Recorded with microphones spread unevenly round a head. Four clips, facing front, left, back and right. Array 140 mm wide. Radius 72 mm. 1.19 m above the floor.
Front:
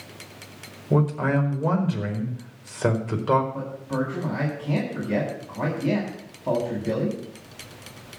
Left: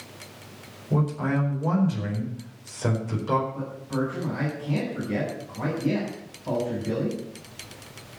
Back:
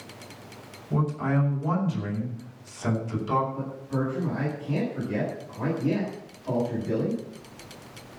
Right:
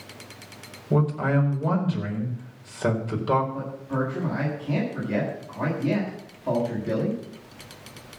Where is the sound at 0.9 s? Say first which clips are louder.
Right 2 dB, front 4 dB; 15° right, 4.5 m.